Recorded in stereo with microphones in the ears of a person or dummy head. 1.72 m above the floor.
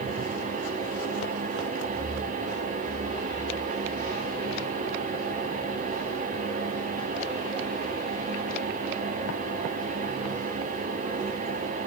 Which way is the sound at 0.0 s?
50° right (ahead or behind).